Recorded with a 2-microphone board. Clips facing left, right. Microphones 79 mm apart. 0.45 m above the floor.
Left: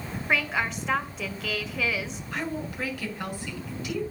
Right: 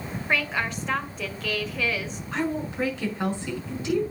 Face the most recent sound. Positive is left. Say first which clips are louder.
# right 5 dB
turn(degrees=-25)  # may be behind; listen again after turning